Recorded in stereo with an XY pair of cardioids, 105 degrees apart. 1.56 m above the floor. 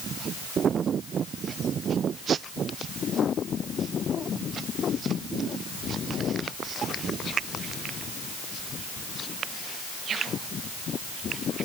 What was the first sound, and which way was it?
Only background noise.